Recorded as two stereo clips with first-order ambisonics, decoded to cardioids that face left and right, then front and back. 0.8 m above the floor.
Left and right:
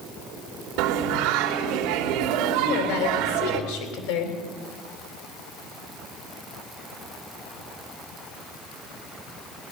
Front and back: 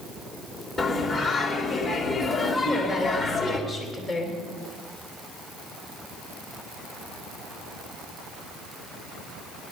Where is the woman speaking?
90° left, 3.5 m.